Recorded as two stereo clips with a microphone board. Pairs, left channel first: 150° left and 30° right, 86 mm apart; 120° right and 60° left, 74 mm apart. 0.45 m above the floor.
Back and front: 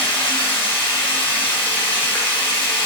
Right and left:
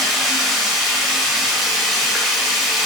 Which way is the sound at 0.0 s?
145° left.